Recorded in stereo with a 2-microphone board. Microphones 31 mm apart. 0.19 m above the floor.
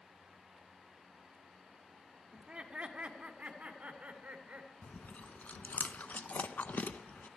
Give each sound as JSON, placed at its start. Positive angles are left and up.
{"t": 2.3, "sound": "laughter", "side_deg": -30, "distance_m": 1.4}
{"t": 4.8, "sound": "chewing", "side_deg": 65, "distance_m": 0.5}